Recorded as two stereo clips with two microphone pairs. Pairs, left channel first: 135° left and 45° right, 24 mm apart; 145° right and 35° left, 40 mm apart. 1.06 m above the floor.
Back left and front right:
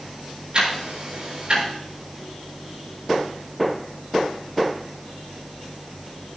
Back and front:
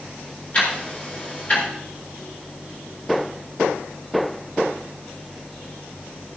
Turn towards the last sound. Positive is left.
turn(degrees=-95)